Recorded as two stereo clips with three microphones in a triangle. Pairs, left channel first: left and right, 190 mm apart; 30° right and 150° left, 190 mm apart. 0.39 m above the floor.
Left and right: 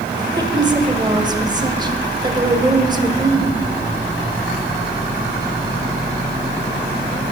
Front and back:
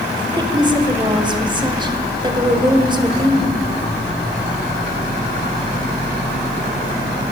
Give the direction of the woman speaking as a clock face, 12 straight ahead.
5 o'clock.